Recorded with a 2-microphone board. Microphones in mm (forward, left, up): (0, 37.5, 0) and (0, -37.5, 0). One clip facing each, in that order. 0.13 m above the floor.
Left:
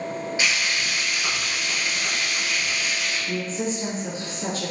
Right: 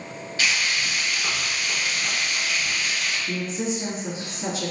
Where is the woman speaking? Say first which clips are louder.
Left 1 dB; 10° right (ahead or behind), 1.5 m.